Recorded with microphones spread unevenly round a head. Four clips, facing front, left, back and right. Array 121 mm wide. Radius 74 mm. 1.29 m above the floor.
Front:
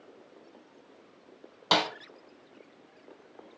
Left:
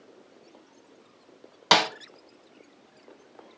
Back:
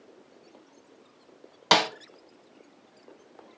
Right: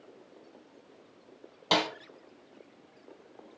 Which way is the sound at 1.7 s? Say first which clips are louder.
Left 6 dB, back 4 dB; 165° right.